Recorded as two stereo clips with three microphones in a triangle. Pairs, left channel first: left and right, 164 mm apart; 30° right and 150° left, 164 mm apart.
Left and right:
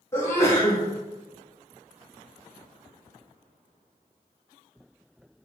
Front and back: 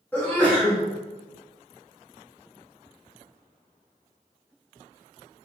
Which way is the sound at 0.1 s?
35° left.